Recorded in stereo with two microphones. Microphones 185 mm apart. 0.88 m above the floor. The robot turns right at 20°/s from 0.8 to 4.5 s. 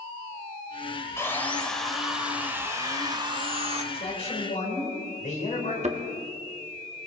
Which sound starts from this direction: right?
A thud, at 5.8 s.